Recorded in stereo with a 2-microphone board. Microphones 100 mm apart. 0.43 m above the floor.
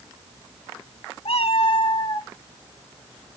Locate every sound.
1.2 s a cat meowing: 85° left, 1.2 m; by 2.3 s 35° left (ahead or behind), 1.3 m